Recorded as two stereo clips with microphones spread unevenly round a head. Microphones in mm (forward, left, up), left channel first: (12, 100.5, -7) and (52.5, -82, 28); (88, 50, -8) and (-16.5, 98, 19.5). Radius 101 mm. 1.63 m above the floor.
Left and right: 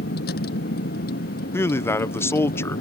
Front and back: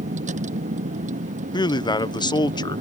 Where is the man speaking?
25° left.